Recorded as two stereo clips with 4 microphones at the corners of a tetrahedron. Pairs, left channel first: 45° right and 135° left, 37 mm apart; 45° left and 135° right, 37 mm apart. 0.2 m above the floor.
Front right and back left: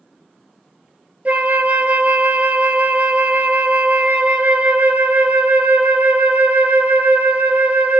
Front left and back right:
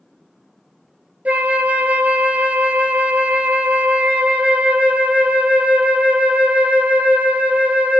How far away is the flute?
About 0.5 m.